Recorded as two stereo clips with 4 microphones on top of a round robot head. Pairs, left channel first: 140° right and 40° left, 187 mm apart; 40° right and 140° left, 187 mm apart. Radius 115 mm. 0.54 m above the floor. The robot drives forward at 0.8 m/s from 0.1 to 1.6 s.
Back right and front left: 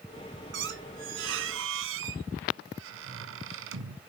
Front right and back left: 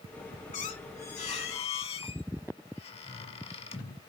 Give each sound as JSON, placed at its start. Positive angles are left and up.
{"t": 0.5, "sound": "a squeak", "azimuth_deg": 10, "distance_m": 1.8}